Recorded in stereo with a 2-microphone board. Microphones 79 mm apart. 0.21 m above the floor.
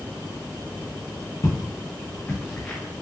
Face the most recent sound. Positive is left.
turn(degrees=10)  # may be behind; listen again after turning